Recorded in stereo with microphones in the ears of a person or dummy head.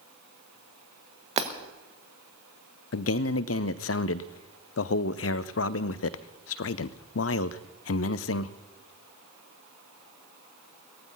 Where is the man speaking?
70° left (ahead or behind), 0.6 m.